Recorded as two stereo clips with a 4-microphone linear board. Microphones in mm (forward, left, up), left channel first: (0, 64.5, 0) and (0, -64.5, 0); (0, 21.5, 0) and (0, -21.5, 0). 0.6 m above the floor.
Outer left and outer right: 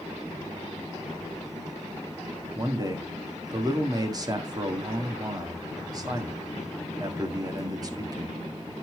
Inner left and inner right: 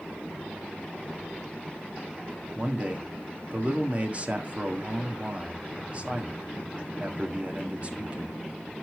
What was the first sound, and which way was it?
A man speaking, 30° right (ahead or behind).